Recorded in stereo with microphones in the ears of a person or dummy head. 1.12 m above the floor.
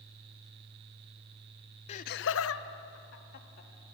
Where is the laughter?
35° left (ahead or behind), 0.8 m; by 3.7 s 50° left (ahead or behind), 2.5 m.